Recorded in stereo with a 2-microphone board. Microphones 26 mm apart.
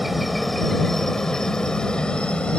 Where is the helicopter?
5° right (ahead or behind); by 2.6 s 40° left (ahead or behind).